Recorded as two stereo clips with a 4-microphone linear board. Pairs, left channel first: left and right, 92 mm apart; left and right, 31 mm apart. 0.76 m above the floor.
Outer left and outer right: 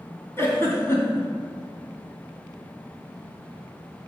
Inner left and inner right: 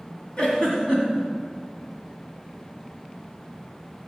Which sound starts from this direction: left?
A giggle, at 0.4 s.